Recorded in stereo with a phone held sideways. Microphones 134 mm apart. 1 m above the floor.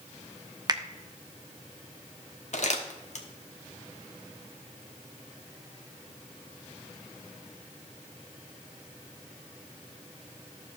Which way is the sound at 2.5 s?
55° left (ahead or behind).